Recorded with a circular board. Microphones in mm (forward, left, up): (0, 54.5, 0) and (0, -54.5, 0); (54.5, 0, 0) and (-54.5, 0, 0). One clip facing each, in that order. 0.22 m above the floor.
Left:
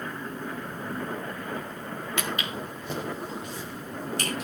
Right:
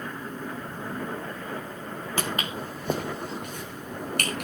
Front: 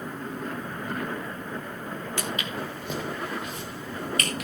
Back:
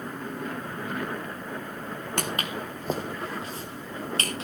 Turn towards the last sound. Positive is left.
turn(degrees=-120)